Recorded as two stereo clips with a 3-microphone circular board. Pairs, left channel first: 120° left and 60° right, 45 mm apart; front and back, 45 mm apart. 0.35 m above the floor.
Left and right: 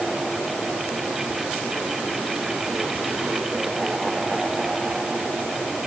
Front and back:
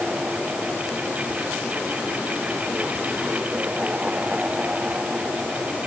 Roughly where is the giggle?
I don't hear a giggle.